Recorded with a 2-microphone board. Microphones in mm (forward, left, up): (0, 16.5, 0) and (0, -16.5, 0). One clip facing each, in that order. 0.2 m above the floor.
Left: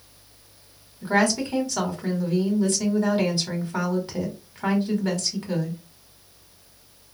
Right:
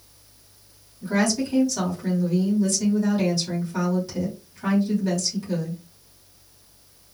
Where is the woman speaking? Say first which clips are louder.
Left 1 dB; 40° left (ahead or behind), 1.4 m.